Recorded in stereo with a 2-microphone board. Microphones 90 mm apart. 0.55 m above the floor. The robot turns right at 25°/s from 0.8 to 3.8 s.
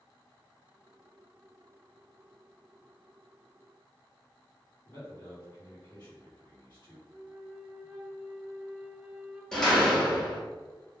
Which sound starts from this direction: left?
A man speaking, at 4.8 s.